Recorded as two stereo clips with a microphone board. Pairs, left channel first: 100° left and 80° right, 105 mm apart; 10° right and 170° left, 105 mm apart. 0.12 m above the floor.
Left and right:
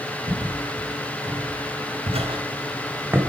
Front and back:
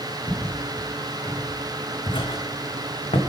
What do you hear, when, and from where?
0.3 s footsteps: 100° right, 2 m; by 3.2 s 5° right, 1.2 m